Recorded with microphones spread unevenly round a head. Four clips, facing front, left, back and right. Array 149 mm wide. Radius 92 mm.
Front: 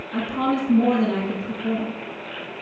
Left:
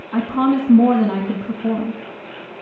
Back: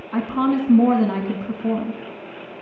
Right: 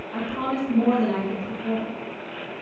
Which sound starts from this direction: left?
A woman speaking, at 0.1 s.